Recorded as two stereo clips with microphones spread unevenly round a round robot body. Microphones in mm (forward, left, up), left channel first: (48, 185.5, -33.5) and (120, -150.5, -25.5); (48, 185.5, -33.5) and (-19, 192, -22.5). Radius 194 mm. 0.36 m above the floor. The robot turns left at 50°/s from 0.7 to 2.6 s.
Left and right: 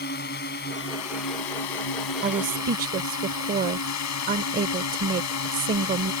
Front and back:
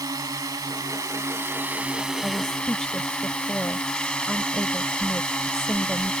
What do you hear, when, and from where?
0.0 s a drone: 165° left; by 6.2 s 70° left
2.2 s a woman speaking: 60° right; by 6.1 s 80° right